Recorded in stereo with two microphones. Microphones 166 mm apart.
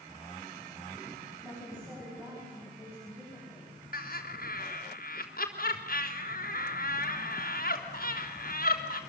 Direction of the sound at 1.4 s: 15° right (ahead or behind).